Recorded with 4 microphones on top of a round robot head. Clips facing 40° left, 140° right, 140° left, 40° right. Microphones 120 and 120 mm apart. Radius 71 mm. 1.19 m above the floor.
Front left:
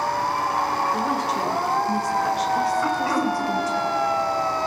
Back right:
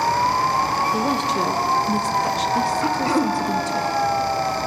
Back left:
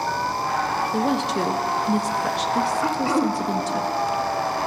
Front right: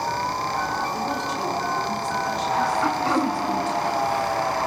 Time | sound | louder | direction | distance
0.9 | a woman speaking | back right 2 dB, back left 4 dB | 160° left | 1.6 m
2.8 | throat clearing | back right 2 dB, back left 1 dB | 155° right | 0.9 m